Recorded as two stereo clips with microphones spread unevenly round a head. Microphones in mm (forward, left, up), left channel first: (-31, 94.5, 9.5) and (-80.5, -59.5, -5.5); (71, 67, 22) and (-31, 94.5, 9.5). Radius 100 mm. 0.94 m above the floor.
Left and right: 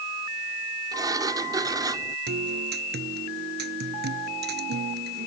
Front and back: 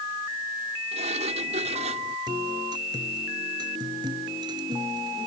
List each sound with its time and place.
0.9 s a sliding door: 175° right
2.3 s a guitar: 125° right